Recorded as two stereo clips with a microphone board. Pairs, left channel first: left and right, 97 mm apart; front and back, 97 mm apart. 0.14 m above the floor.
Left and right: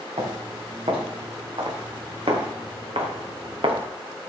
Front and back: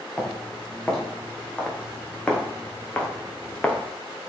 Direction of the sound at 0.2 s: 80° right.